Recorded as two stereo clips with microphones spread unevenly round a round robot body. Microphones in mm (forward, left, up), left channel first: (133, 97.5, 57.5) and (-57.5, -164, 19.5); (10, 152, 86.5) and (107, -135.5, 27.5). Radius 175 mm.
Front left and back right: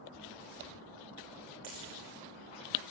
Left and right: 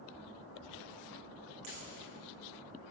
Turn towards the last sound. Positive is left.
turn(degrees=-120)